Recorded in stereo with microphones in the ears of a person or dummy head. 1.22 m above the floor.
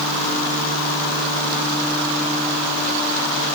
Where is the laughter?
No laughter in this recording.